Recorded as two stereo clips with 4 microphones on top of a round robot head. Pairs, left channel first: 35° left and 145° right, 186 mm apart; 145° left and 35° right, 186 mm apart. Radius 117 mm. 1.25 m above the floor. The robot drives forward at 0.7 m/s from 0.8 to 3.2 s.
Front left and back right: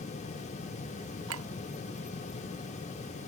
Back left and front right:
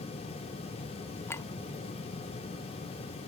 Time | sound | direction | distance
1.3 | a clink | 135° right | ?